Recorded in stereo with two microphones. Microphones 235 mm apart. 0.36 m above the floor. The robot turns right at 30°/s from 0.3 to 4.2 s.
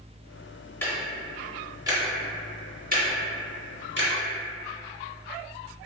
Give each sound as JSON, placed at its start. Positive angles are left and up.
{"t": 0.8, "sound": "ticking", "side_deg": 10, "distance_m": 0.5}